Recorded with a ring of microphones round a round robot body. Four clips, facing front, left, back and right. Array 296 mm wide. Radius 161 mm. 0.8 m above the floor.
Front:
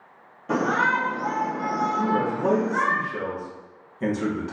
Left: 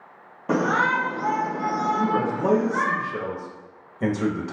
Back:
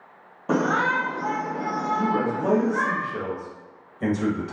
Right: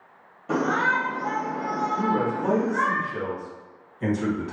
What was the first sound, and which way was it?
A shout, 130° left.